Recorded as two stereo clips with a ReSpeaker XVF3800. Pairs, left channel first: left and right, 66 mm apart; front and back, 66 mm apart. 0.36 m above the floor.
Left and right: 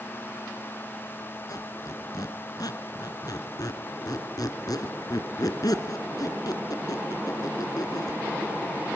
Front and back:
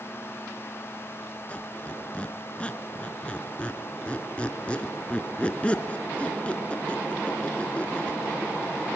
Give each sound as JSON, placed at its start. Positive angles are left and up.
{"t": 1.5, "sound": "a squeak", "azimuth_deg": 70, "distance_m": 1.8}